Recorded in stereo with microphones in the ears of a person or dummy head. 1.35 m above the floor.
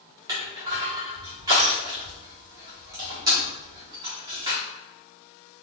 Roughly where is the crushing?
Centre.